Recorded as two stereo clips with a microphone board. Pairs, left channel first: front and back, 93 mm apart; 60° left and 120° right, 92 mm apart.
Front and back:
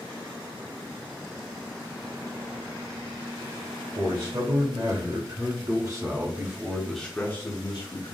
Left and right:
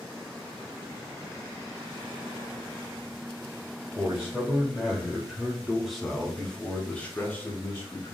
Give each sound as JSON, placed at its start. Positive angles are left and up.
{"t": 4.0, "sound": "a man speaking", "azimuth_deg": 160, "distance_m": 1.9}